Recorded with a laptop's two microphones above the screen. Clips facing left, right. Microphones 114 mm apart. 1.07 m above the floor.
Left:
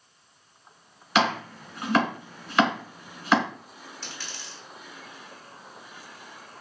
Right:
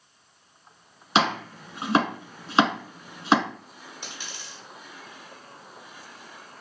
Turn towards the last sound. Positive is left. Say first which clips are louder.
# right 1 dB
turn(degrees=-15)  # may be behind; listen again after turning